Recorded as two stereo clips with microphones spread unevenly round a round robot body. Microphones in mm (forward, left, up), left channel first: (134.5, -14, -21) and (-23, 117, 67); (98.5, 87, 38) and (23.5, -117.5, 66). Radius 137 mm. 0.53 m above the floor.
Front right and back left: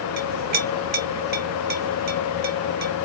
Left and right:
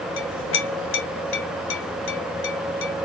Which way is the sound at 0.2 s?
85° left.